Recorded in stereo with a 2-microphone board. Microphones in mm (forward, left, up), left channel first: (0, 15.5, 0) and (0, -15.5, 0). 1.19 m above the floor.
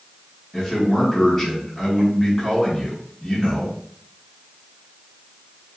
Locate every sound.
0.5 s a man speaking: 5° left (ahead or behind), 1.8 m